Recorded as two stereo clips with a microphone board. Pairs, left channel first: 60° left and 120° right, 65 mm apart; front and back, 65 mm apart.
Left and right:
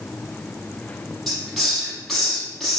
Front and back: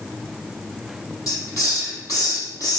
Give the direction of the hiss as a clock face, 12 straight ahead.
1 o'clock.